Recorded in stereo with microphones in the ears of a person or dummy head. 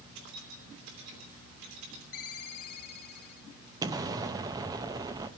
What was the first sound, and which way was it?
Keys jangling, 70° right (ahead or behind).